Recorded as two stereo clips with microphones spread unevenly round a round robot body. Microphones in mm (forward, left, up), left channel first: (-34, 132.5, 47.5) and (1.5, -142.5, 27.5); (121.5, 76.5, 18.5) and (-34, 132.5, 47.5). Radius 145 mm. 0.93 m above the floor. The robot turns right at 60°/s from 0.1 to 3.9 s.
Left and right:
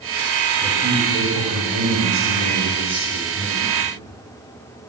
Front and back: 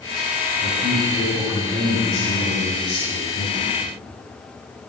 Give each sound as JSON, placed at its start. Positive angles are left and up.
{"t": 0.6, "sound": "a man speaking", "azimuth_deg": -145, "distance_m": 8.5}